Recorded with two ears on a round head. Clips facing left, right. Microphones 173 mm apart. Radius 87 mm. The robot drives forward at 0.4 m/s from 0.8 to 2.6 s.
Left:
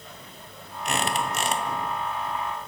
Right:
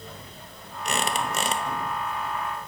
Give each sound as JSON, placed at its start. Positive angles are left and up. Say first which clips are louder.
{"t": 0.8, "sound": "a squeak", "louder": "even", "side_deg": -85, "distance_m": 0.6}